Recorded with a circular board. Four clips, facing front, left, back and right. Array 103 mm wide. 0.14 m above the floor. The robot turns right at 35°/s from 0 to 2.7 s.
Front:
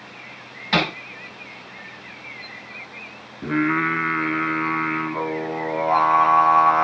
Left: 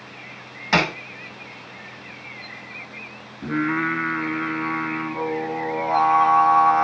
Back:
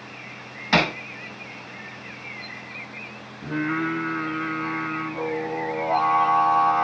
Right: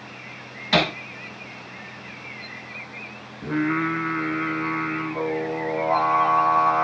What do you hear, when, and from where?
0.7 s hammering: 110° left, 0.7 m; by 0.9 s 120° left, 0.7 m
3.4 s singing: 10° left, 1.0 m